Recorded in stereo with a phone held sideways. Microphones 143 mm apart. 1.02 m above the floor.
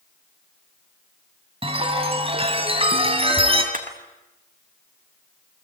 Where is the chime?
40° right (ahead or behind), 3 m.